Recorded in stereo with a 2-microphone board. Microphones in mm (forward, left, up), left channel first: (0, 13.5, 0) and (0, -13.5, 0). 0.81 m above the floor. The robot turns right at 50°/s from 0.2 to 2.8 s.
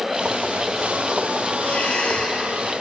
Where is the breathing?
85° left, 3 m; by 2.4 s 125° left, 3 m.